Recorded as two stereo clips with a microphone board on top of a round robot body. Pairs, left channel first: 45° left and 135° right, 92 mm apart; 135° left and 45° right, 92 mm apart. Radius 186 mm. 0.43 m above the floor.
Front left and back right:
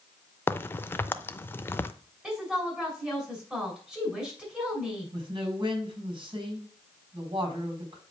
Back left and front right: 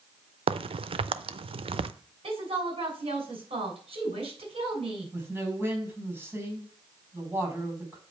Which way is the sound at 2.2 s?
55° right.